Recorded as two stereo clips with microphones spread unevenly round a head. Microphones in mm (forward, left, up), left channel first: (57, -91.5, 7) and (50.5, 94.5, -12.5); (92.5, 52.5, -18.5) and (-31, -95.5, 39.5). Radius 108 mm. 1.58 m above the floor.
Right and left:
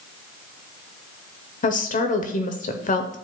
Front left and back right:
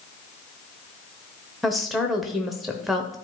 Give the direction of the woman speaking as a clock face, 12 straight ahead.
1 o'clock.